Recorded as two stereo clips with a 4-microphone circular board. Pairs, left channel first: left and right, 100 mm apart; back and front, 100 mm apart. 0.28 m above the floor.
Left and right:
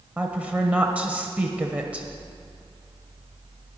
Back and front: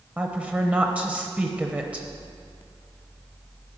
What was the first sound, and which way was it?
A woman speaking, 45° right.